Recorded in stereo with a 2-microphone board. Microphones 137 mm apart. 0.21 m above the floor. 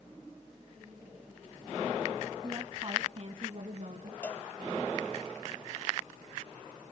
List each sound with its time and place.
2.4 s a woman speaking: 25° right (ahead or behind), 1.9 m; by 4.1 s 50° right (ahead or behind), 2.5 m
4.2 s a cowbell: 10° left (ahead or behind), 1.8 m